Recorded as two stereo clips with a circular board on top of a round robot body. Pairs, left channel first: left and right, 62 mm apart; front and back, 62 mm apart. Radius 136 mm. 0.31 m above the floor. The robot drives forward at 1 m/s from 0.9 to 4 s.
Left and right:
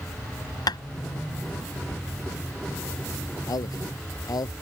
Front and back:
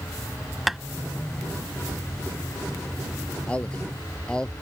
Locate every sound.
0.7 s tapping: 90° left
3.5 s a man speaking: 70° left; by 4.5 s 75° left